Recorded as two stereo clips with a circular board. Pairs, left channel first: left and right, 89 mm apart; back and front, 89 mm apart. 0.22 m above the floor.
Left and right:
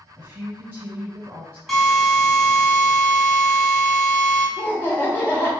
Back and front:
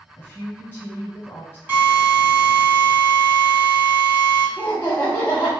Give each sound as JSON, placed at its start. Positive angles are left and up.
{"t": 0.2, "sound": "a woman speaking", "azimuth_deg": -135, "distance_m": 1.1}
{"t": 1.7, "sound": "a drill", "azimuth_deg": 0, "distance_m": 1.2}
{"t": 4.6, "sound": "laughter", "azimuth_deg": 125, "distance_m": 1.2}